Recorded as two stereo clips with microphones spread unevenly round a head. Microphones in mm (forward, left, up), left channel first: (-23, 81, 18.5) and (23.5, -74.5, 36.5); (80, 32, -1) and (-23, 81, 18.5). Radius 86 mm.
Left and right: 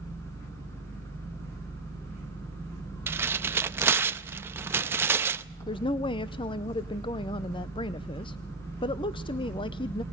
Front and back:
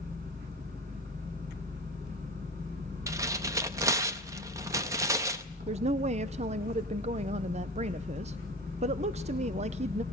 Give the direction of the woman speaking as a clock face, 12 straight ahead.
7 o'clock.